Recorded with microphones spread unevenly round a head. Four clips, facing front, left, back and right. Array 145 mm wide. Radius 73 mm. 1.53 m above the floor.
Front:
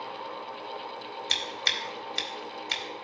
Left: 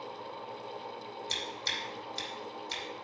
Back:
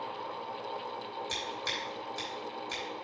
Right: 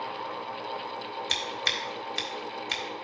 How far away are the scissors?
About 1.8 m.